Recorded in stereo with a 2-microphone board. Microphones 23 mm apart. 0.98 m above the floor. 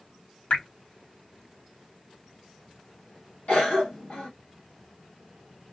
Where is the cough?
65° left (ahead or behind), 1.8 m.